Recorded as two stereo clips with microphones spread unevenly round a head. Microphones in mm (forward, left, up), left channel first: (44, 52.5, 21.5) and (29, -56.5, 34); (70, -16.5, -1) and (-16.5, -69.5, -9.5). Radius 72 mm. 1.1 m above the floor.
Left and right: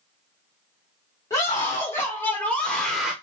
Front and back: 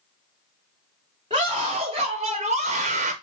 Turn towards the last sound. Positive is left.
turn(degrees=180)